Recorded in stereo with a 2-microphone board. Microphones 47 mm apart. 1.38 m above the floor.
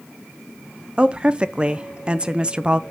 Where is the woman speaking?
20° right (ahead or behind), 0.6 m.